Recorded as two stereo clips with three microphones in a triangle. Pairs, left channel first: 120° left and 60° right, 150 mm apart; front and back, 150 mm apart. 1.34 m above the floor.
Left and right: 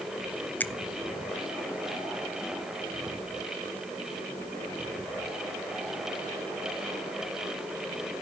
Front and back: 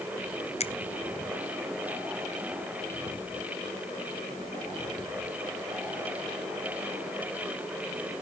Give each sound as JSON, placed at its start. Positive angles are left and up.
{"t": 0.6, "sound": "a finger snap", "azimuth_deg": 40, "distance_m": 0.6}